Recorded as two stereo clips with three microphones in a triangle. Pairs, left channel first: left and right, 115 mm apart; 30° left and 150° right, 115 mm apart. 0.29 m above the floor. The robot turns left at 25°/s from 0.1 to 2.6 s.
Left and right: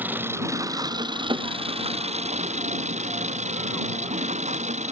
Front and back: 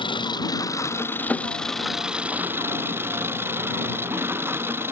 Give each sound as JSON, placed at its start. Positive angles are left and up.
{"t": 0.0, "sound": "an engine running", "azimuth_deg": -15}